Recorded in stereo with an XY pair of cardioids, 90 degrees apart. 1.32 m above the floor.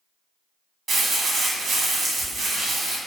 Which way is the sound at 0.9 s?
65° right.